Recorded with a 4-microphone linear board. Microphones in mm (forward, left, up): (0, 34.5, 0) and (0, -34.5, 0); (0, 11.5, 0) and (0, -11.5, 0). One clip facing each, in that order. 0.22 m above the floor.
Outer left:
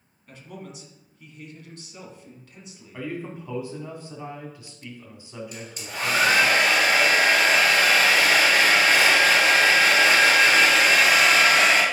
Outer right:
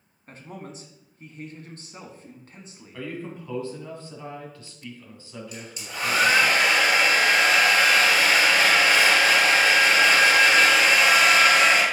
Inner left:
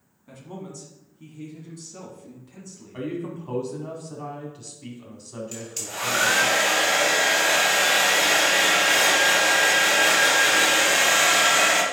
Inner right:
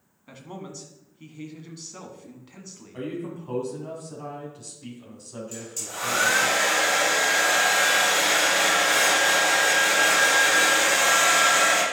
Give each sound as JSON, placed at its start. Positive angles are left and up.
{"t": 0.3, "sound": "a man speaking", "side_deg": -35, "distance_m": 1.6}
{"t": 2.9, "sound": "a man speaking", "side_deg": 15, "distance_m": 1.9}
{"t": 5.5, "sound": "a hair dryer", "side_deg": 40, "distance_m": 3.0}